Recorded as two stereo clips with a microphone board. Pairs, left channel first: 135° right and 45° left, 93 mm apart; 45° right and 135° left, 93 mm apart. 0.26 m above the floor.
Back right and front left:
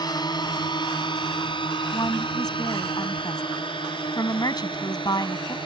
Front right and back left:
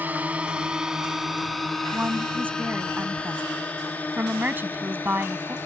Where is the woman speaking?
160° right.